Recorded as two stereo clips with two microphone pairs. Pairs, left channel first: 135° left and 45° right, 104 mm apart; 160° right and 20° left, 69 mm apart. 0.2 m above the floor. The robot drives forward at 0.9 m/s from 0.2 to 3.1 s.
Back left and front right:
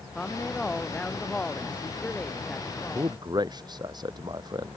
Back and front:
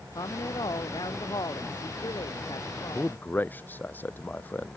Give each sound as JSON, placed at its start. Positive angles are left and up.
{"t": 0.1, "sound": "a woman speaking", "azimuth_deg": -140}
{"t": 3.0, "sound": "a man speaking", "azimuth_deg": -95}